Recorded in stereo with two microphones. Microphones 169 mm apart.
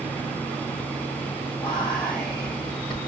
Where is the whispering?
25° left (ahead or behind), 1.8 m.